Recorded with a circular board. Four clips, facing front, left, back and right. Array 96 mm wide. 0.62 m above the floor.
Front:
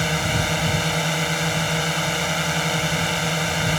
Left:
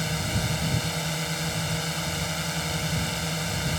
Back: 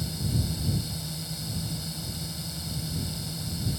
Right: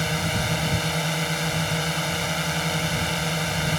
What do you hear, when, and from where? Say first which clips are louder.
0.0 s a drone: right 4 dB, front 9 dB; 15° right